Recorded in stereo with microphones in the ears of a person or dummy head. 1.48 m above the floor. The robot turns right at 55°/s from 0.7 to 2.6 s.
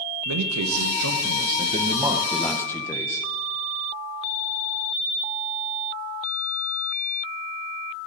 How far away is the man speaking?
About 1.0 m.